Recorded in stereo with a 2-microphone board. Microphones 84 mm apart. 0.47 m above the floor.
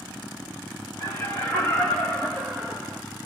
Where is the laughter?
40° left (ahead or behind), 1.8 m; by 3.0 s 5° right (ahead or behind), 1.2 m.